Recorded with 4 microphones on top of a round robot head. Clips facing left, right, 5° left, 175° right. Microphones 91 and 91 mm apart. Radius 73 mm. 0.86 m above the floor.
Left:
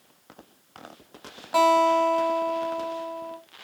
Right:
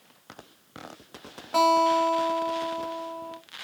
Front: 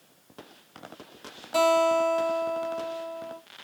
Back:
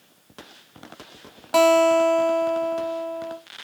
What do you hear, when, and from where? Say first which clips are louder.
1.5 s a guitar: left 2 dB, back 6 dB; 170° left, 0.9 m